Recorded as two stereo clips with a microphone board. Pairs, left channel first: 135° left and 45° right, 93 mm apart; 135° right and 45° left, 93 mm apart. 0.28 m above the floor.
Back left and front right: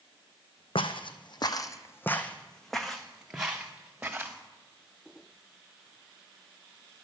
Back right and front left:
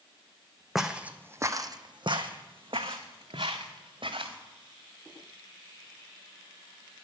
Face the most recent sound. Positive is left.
turn(degrees=30)